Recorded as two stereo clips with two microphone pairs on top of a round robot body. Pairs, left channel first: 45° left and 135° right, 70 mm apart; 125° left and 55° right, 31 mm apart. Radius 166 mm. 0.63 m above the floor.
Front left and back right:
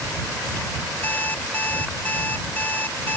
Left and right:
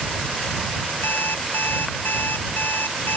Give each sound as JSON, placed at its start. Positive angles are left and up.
{"t": 1.0, "sound": "an alarm clock", "azimuth_deg": 115}